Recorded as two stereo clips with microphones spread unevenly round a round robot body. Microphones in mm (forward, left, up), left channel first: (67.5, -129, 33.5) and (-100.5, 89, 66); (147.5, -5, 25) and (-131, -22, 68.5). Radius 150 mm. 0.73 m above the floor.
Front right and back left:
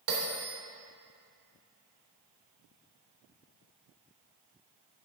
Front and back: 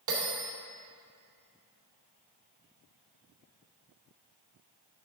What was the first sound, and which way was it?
A bell, 160° left.